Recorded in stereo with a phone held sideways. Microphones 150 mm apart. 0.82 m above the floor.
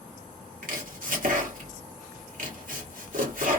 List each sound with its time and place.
0.6 s chopping: 65° right (ahead or behind), 1.4 m